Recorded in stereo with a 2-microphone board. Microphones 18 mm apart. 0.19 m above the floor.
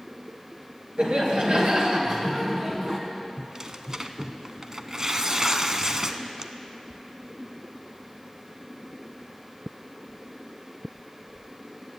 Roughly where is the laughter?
Right.